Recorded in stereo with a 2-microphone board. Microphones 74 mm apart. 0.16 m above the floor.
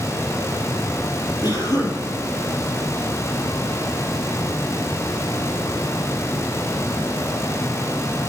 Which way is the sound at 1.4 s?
60° left (ahead or behind).